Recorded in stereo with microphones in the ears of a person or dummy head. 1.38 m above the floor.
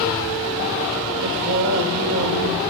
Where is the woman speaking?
65° right (ahead or behind), 1.2 m.